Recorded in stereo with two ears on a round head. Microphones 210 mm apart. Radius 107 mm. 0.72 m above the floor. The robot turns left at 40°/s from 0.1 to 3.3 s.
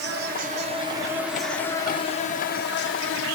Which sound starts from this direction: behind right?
An insect, at 0.0 s.